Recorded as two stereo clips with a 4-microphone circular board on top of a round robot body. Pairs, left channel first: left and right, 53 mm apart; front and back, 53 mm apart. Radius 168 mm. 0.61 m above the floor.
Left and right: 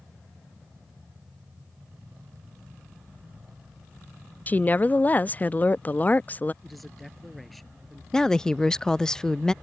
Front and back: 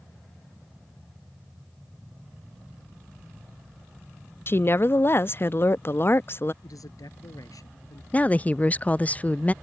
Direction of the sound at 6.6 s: Straight ahead.